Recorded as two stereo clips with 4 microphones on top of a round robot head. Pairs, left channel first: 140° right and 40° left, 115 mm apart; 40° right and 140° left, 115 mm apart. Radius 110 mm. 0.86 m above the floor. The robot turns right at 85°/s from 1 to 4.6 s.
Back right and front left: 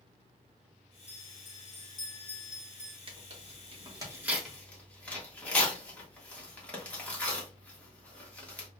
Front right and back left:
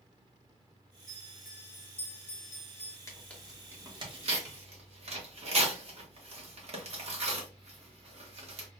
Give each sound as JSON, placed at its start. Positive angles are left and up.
{"t": 1.1, "sound": "a bell", "azimuth_deg": -165, "distance_m": 2.5}
{"t": 3.1, "sound": "tearing paper", "azimuth_deg": 15, "distance_m": 1.6}